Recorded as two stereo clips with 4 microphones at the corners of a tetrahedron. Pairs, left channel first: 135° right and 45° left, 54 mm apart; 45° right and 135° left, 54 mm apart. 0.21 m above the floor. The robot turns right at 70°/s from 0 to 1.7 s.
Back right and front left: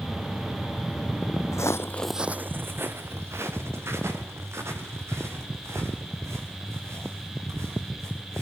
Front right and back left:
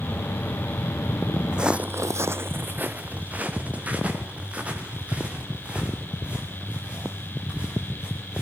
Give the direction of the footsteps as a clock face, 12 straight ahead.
5 o'clock.